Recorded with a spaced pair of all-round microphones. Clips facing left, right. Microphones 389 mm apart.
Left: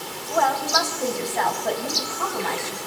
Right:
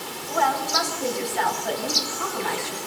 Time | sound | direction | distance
0.3 | a woman speaking | 65° left (ahead or behind) | 5.5 m